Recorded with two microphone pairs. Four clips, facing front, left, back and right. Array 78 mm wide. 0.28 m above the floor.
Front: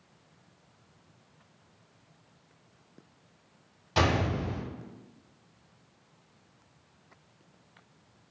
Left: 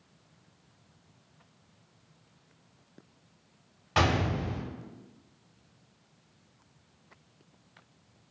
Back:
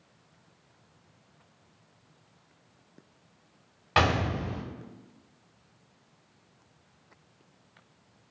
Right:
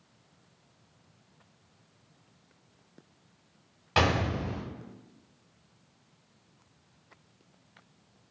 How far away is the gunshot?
About 0.8 m.